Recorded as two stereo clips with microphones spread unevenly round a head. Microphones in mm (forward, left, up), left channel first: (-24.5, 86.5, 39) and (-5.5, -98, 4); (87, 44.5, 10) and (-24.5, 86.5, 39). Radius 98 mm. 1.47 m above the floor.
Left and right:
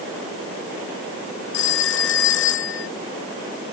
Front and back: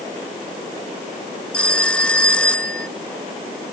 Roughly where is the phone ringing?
Ahead left.